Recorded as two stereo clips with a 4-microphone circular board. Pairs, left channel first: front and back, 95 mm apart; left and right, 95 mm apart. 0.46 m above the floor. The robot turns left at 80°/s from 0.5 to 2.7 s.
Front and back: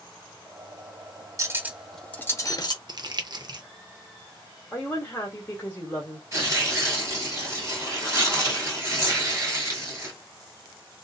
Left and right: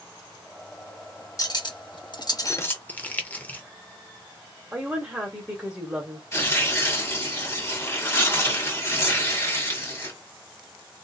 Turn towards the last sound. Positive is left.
turn(degrees=140)